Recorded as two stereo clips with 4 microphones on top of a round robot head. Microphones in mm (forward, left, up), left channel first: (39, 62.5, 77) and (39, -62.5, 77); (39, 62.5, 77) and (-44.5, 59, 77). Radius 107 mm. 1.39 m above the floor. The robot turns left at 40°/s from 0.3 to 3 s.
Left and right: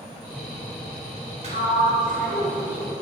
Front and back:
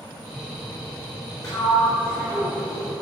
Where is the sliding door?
55° right, 3.5 m; by 2.9 s 110° right, 3.5 m.